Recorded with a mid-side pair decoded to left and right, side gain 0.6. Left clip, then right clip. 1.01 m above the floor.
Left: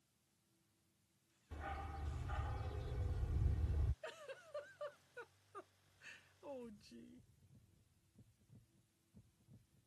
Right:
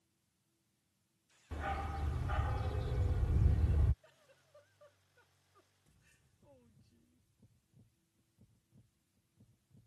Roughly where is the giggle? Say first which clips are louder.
Left 14 dB; ahead left.